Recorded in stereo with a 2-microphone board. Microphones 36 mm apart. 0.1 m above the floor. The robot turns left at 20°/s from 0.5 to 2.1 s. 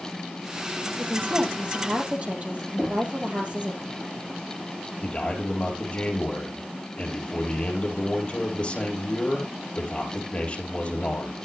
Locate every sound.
1.0 s a woman speaking: 55° right (ahead or behind), 3 m; by 3.8 s 35° right (ahead or behind), 3 m
2.8 s knocking: 10° right (ahead or behind), 3 m
5.0 s a man speaking: 35° left (ahead or behind), 3.5 m